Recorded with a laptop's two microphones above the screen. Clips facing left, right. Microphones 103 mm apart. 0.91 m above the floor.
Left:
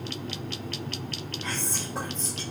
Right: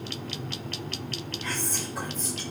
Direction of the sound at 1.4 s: 30° left (ahead or behind).